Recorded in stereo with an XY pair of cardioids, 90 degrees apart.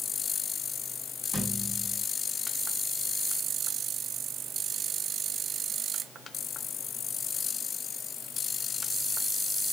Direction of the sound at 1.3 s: 15° right.